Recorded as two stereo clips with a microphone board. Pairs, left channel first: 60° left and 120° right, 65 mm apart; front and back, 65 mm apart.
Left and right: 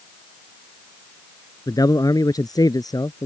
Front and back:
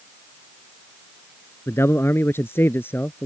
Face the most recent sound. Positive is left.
turn(degrees=55)